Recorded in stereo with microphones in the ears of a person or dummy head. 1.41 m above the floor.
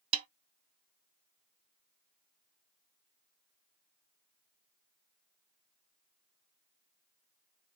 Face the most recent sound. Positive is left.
turn(degrees=-35)  # may be behind; listen again after turning